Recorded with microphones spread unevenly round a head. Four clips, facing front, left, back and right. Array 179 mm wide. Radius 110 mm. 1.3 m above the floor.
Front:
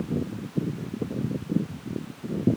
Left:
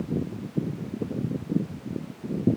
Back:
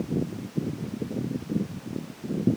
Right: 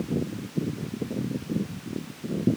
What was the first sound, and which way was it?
Only background noise.